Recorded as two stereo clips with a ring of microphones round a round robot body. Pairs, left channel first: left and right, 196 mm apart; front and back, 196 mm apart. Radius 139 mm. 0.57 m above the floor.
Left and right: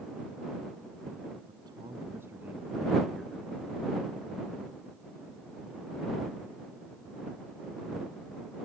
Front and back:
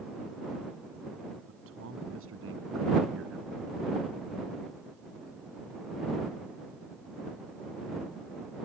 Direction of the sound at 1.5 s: 165° right.